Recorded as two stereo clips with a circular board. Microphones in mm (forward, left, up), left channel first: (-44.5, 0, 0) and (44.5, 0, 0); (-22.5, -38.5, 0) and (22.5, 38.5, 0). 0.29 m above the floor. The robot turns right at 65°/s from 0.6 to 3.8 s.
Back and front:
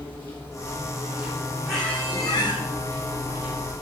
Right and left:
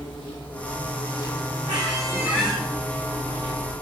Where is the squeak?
90° left, 3 m; by 2.6 s 150° left, 3 m.